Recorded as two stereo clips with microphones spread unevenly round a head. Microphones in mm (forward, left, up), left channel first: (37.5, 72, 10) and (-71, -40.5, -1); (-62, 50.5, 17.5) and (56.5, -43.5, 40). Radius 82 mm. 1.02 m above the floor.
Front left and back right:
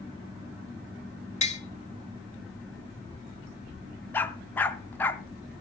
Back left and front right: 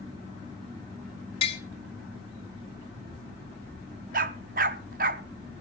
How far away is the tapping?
About 2.5 m.